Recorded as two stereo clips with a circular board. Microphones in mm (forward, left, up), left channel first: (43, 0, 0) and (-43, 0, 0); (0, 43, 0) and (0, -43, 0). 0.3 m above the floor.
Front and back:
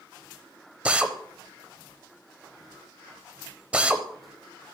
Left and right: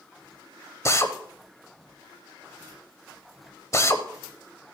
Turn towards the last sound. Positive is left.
turn(degrees=110)